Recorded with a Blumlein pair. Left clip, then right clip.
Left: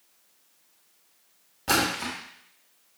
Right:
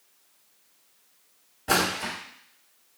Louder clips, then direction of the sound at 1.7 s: Even; 50° left.